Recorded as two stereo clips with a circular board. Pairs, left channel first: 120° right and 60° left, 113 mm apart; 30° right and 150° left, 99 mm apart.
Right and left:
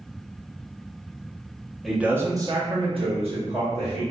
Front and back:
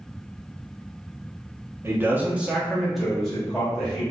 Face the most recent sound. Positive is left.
turn(degrees=50)